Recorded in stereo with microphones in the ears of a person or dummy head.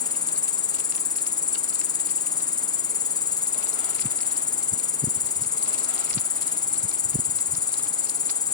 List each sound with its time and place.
0.0 s an insect: 25° left (ahead or behind)